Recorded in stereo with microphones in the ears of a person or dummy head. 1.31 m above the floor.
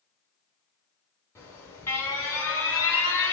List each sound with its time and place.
1.4 s an alarm: 20° left (ahead or behind), 2.5 m